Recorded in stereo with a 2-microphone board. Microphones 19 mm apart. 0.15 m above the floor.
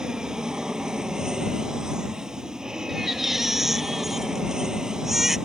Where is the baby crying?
15° right (ahead or behind).